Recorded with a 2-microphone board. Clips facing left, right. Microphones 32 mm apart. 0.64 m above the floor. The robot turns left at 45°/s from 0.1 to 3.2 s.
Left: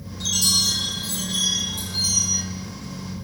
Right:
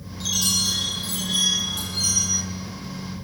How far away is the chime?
About 7 m.